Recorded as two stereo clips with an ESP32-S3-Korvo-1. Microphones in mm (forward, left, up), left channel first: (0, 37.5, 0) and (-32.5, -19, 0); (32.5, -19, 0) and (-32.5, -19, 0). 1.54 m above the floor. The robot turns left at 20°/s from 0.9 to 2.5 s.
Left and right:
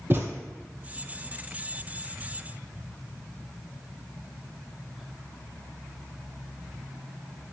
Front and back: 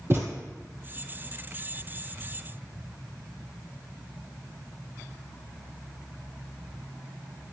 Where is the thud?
155° right, 2 m.